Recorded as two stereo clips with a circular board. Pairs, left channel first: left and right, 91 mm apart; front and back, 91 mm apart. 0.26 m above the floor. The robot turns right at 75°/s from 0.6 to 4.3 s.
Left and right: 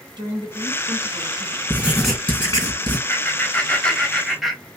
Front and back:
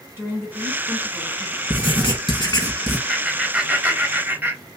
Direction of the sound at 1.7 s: 25° right.